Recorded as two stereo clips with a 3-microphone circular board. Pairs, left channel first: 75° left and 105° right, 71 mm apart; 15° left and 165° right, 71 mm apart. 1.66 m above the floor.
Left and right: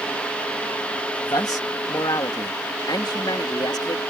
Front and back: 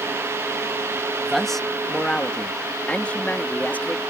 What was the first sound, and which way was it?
A man speaking, 105° left.